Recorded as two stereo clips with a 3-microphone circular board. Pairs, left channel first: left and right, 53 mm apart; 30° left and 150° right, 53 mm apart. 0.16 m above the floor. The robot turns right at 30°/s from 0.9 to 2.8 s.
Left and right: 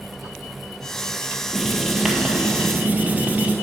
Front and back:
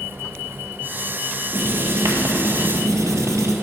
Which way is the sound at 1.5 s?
175° left.